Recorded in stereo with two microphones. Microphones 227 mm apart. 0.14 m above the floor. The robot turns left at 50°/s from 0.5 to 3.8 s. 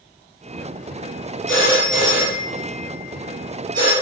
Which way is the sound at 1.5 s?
60° left (ahead or behind).